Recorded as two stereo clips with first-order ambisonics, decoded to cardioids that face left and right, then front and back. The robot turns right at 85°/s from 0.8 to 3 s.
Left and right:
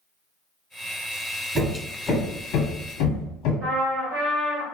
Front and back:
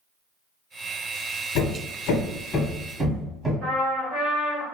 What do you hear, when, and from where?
1.6 s hammering: 20° right, 0.7 m; by 3.5 s 105° left, 0.7 m
3.6 s a trumpet: 115° right, 1.7 m